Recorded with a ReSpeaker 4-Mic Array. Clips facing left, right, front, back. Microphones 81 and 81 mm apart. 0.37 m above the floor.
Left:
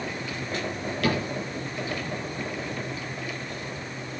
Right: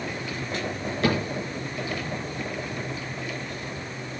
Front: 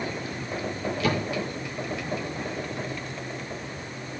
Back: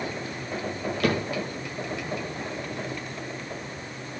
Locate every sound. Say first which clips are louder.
1.0 s a cupboard door: right 2 dB, back 2 dB; 150° right, 6 m